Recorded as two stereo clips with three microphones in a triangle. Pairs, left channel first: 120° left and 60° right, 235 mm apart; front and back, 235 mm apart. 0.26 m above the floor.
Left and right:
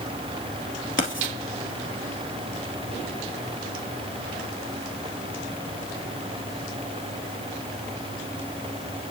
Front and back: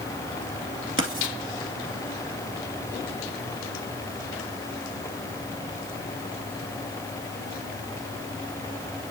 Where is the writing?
150° left, 1.9 m.